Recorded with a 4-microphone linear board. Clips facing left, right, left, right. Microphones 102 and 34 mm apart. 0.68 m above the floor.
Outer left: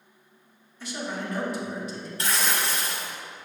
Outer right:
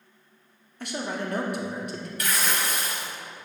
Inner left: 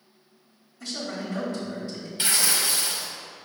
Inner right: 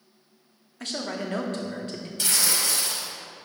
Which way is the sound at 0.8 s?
60° right (ahead or behind).